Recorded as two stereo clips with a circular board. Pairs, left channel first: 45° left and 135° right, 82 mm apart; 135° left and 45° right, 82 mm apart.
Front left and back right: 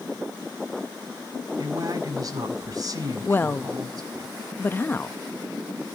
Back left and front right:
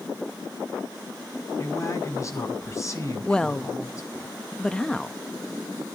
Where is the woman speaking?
65° left, 0.6 m.